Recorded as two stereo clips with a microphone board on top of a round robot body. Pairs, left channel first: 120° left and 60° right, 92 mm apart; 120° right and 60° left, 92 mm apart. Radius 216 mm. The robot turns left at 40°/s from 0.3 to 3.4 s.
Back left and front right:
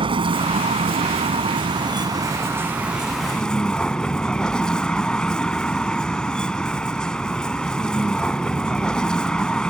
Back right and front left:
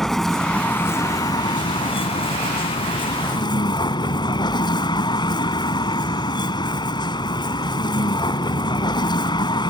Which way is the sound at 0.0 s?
35° right.